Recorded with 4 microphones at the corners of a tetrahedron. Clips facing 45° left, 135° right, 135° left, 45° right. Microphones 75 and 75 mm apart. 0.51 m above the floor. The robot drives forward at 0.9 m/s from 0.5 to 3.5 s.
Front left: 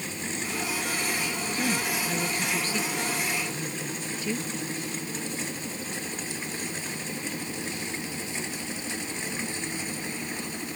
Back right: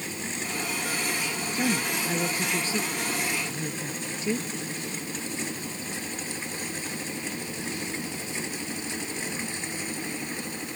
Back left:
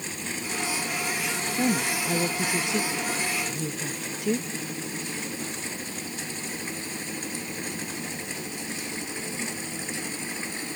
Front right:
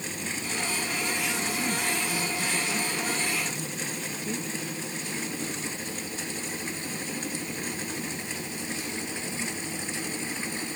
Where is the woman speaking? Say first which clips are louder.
Back right 2 dB, back left 4 dB; 150° left; by 4.5 s 155° left.